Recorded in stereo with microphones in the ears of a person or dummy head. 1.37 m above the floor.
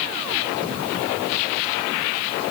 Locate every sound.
Only background noise.